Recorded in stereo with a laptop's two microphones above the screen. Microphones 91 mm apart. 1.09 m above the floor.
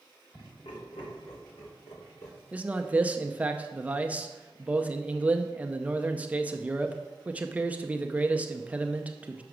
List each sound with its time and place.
0.3 s laughter: 85° left, 5.5 m; by 2.4 s 55° left (ahead or behind), 4 m
2.5 s a man speaking: 15° right (ahead or behind), 0.6 m